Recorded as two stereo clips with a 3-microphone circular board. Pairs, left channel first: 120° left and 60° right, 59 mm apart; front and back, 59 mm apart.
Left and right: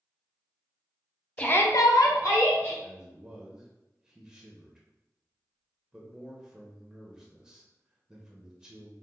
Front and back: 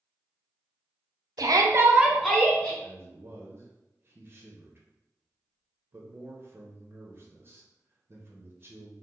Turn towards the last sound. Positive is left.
turn(degrees=-140)